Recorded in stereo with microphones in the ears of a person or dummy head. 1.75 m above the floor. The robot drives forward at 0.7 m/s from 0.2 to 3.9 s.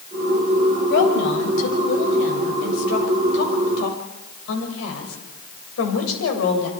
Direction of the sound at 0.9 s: 65° left (ahead or behind).